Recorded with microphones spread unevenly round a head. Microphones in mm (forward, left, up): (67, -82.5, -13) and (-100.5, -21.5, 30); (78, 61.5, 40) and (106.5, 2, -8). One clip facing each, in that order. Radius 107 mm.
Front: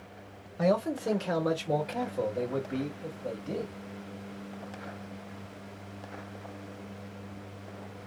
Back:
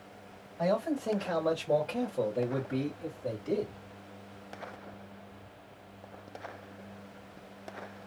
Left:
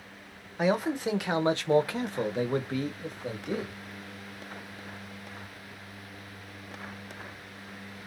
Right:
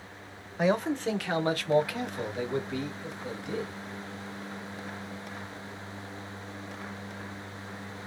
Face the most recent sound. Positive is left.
turn(degrees=90)